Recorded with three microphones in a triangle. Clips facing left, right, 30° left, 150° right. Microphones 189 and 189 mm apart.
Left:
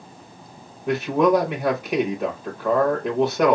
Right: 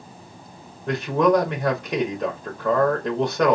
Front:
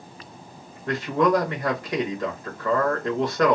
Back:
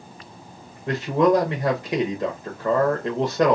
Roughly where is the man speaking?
Behind.